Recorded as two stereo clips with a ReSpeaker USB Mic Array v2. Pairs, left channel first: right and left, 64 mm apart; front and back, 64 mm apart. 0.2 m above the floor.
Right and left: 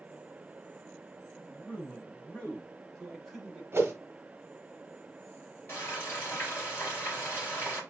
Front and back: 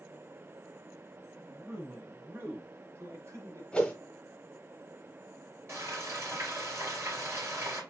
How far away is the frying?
About 3 m.